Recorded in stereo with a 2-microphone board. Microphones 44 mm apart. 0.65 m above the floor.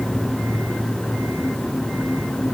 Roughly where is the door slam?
I don't hear a door slam.